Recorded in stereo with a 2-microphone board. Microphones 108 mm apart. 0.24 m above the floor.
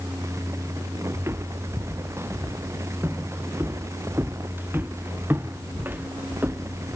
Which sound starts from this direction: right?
Footsteps, at 1.1 s.